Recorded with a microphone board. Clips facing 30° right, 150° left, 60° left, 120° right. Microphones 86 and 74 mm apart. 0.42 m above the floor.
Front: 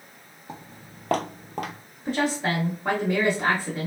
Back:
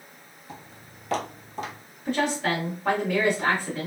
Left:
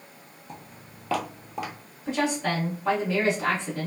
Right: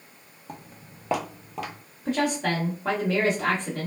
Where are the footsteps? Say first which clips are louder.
Front 3 dB, right 2 dB; 80° right, 0.9 m; by 1.8 s 15° right, 0.8 m.